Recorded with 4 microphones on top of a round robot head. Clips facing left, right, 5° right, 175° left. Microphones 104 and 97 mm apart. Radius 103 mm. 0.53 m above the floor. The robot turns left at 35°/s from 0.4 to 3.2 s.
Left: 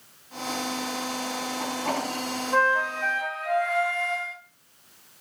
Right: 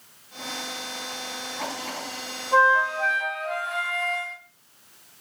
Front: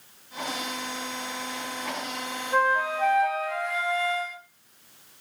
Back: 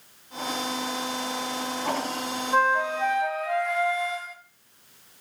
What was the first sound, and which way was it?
A flute, 135° right.